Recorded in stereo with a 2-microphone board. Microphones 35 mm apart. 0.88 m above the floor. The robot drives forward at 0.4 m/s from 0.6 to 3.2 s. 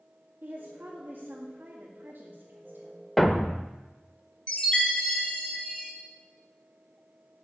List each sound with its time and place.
0.4 s a woman speaking: 50° right (ahead or behind), 1.8 m; by 3.1 s 60° right (ahead or behind), 1.6 m
3.2 s a thud: 5° left (ahead or behind), 0.6 m
4.5 s a chime: 25° left (ahead or behind), 2.5 m